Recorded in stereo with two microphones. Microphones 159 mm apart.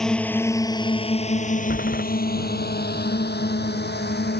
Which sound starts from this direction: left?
A door slam, at 1.7 s.